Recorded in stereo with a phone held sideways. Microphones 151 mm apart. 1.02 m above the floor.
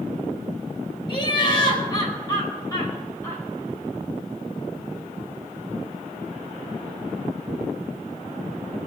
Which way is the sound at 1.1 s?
35° left (ahead or behind).